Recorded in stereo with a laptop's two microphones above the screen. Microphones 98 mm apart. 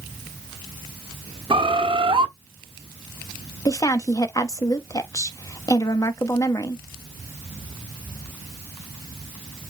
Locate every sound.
1.5 s a bird: 65° right (ahead or behind), 1.0 m
3.6 s a woman speaking: 35° left (ahead or behind), 1.0 m